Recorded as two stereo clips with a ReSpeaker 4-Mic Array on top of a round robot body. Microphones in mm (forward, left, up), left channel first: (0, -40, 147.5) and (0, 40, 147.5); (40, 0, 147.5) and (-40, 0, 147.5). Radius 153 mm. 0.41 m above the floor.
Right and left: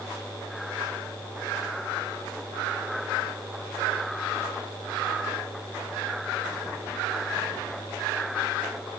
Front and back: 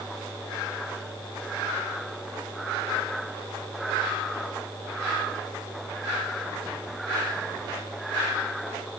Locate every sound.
Only background noise.